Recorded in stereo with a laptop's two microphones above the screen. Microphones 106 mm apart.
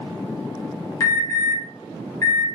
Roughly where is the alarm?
Left.